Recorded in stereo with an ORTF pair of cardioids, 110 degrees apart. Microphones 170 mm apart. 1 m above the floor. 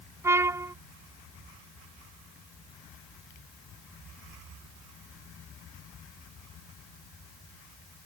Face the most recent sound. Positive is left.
turn(degrees=-15)